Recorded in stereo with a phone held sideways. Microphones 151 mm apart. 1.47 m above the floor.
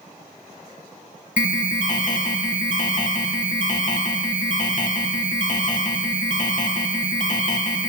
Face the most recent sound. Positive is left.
turn(degrees=55)  # may be behind; listen again after turning